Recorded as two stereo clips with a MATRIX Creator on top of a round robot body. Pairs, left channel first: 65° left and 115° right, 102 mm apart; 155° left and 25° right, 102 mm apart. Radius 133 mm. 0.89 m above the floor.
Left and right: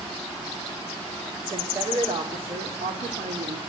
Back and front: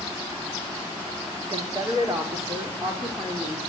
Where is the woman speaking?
70° right, 2.5 m; by 3.6 s 105° right, 2.5 m.